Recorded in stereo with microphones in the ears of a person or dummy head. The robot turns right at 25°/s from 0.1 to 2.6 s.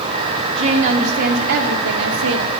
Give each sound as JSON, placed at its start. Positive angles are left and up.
{"t": 0.6, "sound": "a woman speaking", "azimuth_deg": -145, "distance_m": 0.7}